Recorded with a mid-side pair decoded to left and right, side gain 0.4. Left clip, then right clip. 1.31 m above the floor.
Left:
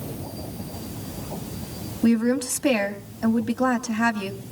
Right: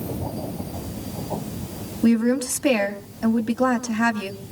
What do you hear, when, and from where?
2.0 s a woman speaking: 10° right, 2 m